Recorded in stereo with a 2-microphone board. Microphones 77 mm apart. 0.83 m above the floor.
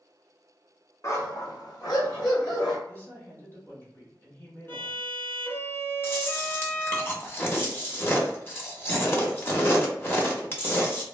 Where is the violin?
30° left (ahead or behind), 0.6 m.